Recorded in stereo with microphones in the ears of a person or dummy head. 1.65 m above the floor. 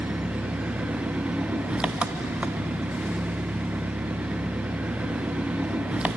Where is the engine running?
5° right (ahead or behind), 1.1 m.